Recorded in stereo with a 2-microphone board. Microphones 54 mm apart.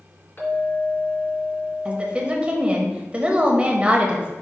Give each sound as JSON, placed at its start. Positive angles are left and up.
{"t": 0.4, "sound": "a clink", "side_deg": 35, "distance_m": 2.5}
{"t": 1.9, "sound": "a woman speaking", "side_deg": -25, "distance_m": 1.0}